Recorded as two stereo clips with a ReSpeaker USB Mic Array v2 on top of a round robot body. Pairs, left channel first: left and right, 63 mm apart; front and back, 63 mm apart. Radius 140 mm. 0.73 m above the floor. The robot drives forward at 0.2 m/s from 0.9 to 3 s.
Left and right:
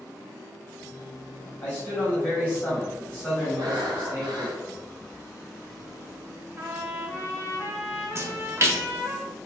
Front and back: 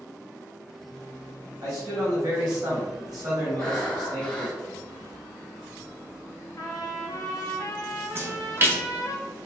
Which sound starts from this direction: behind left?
A man speaking, at 1.6 s.